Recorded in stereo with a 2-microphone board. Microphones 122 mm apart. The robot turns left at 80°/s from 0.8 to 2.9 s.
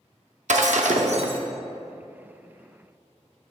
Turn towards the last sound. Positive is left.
turn(degrees=105)